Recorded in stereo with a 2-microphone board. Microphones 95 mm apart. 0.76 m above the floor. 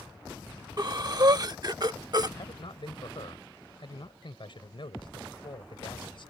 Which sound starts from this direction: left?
A man speaking, at 2.4 s.